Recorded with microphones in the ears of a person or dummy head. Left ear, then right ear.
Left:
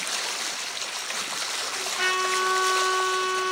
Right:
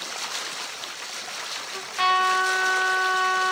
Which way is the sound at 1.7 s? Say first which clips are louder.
Right 5 dB; 40° right (ahead or behind).